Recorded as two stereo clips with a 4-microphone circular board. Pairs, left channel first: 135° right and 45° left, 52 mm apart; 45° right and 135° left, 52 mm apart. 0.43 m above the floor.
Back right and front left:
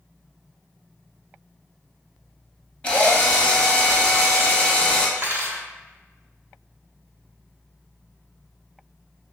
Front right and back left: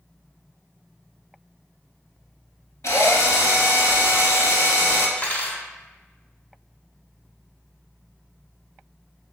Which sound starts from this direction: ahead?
Cutlery clinking, at 5.2 s.